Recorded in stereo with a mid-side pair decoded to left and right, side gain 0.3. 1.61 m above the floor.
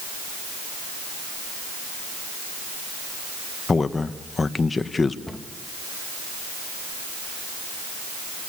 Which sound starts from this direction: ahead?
A cupboard door, at 5.3 s.